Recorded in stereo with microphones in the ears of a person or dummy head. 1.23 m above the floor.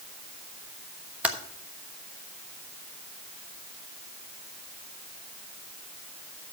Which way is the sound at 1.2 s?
10° right (ahead or behind).